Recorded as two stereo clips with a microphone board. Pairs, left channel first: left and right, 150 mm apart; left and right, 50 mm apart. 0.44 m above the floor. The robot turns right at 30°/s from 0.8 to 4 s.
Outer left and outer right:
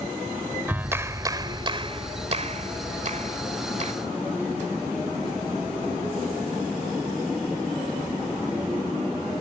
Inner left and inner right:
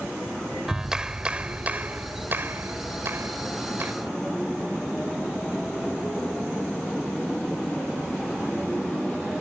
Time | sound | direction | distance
0.7 | a clap | 165° right | ?